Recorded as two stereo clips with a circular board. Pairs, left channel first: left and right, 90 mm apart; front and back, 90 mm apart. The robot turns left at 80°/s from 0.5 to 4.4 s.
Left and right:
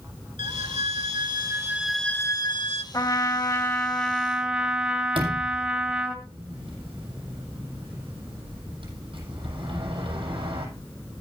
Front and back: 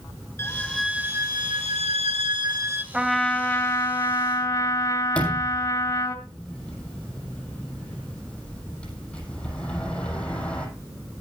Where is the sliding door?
80° right, 7 m.